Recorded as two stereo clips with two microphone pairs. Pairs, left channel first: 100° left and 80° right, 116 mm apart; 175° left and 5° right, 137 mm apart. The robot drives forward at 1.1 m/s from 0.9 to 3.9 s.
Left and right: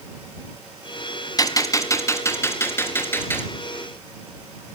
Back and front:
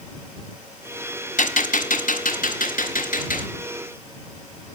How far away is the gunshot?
About 1.4 m.